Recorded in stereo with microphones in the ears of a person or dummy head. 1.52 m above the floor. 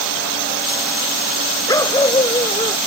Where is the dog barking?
20° left (ahead or behind); by 2.8 s 25° left (ahead or behind).